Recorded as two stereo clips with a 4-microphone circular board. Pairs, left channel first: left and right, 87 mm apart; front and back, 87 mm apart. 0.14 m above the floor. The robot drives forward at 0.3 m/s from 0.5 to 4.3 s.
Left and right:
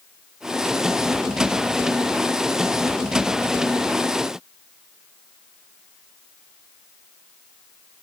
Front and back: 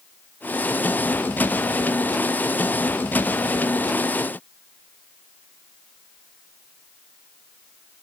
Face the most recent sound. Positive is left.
No sound to turn to.